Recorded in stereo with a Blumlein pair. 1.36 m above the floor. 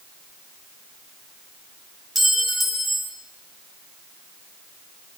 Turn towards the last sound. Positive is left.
turn(degrees=0)